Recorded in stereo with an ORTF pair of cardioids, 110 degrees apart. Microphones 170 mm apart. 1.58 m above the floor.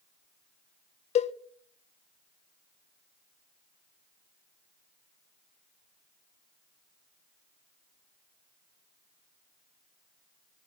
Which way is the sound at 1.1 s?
40° left.